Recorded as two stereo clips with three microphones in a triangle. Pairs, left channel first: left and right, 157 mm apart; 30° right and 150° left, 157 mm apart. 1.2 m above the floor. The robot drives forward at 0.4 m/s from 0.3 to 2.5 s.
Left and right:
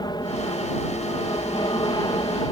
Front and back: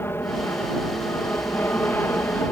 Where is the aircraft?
40° left.